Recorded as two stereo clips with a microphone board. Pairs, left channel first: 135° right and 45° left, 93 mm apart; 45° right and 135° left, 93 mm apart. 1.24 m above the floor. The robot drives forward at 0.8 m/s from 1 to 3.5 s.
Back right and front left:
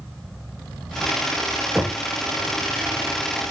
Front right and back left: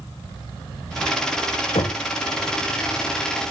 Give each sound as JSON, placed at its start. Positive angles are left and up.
{"t": 1.8, "sound": "knocking", "azimuth_deg": -45, "distance_m": 0.6}